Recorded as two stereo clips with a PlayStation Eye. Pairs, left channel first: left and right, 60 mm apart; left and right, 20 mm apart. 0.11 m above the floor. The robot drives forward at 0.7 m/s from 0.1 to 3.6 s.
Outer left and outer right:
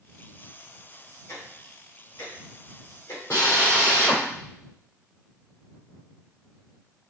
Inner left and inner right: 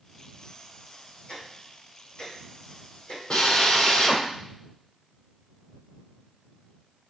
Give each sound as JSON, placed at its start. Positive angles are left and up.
{"t": 1.3, "sound": "ticking", "side_deg": 60, "distance_m": 5.0}
{"t": 3.3, "sound": "a drill", "side_deg": 65, "distance_m": 2.5}